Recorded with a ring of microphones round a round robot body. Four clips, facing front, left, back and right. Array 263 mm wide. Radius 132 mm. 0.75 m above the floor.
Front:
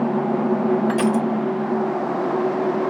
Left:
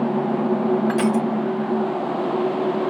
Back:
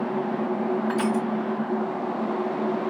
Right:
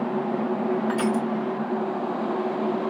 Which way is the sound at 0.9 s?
30° left.